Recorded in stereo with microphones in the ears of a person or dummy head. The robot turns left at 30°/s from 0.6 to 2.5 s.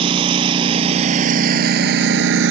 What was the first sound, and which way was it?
A lawn mower, 35° right (ahead or behind).